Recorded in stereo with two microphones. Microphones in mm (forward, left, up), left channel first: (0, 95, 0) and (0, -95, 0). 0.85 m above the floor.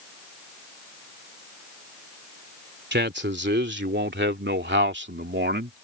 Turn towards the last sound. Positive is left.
turn(degrees=-65)  # may be behind; listen again after turning